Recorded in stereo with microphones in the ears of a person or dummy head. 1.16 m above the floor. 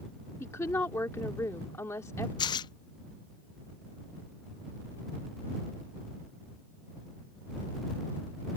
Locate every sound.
0.4 s a woman speaking: 20° left (ahead or behind)
2.4 s tearing paper: 20° left (ahead or behind)